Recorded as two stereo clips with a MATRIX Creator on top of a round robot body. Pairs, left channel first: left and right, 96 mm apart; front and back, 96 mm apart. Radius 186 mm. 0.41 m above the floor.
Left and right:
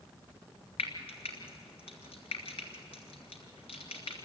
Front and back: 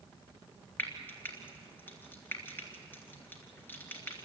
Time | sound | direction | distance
0.8 | frying | 70° left | 2.5 m